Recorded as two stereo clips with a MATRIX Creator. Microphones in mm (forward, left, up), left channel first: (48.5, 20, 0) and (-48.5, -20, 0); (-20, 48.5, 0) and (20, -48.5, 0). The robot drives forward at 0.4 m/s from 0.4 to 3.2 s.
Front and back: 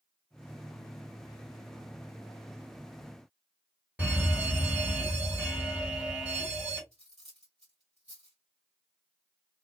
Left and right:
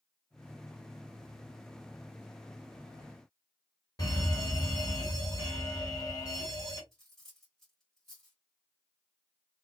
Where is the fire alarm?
140° left, 1.7 m.